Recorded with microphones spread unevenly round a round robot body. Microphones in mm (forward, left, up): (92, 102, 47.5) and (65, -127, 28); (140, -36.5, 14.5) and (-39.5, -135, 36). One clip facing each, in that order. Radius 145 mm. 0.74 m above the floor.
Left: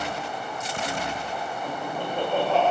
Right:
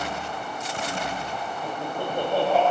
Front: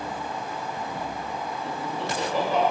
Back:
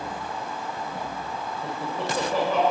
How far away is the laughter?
About 3 m.